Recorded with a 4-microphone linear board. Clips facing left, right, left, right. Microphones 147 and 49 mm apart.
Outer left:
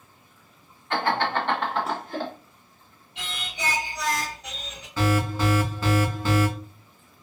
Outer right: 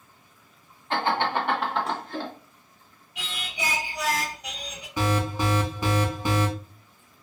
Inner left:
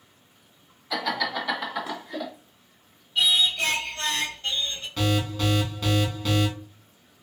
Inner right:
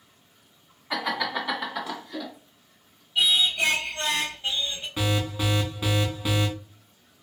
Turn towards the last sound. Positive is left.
turn(degrees=-15)  # may be behind; listen again after turning